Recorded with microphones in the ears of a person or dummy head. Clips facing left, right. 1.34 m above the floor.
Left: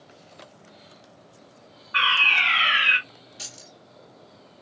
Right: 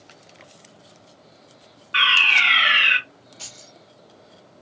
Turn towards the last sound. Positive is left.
turn(degrees=25)  # may be behind; listen again after turning